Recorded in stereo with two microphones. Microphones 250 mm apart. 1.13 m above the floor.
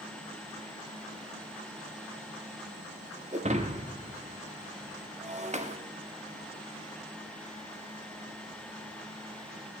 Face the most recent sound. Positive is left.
turn(degrees=-30)  # may be behind; listen again after turning